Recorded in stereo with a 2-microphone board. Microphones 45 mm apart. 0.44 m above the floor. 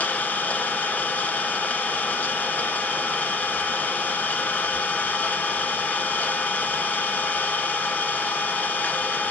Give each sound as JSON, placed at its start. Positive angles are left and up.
{"t": 0.0, "sound": "an engine running", "side_deg": 35, "distance_m": 1.1}